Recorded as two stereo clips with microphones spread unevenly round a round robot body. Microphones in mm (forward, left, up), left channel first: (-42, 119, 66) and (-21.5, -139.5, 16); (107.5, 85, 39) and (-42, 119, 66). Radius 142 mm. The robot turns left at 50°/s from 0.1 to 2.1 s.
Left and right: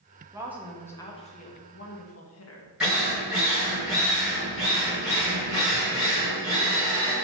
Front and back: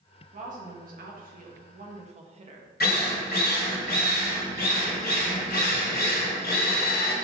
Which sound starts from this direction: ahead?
A drill, at 2.8 s.